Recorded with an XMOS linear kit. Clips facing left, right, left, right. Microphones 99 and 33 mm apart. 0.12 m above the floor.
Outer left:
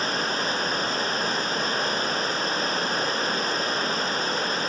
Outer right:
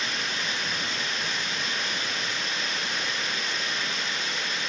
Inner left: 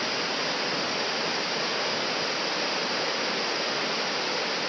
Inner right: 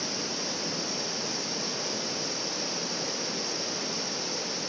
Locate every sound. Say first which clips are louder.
0.0 s running water: outer left 6 dB, inner left 6 dB; 40° left (ahead or behind)